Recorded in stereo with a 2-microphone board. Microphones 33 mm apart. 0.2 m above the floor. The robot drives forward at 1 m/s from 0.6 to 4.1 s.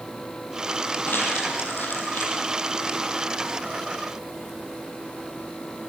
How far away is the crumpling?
About 7 m.